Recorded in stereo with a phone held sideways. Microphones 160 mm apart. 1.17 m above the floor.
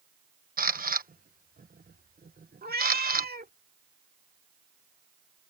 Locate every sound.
0.6 s a camera shutter: 65° right (ahead or behind)
2.6 s a cat meowing: 75° right (ahead or behind)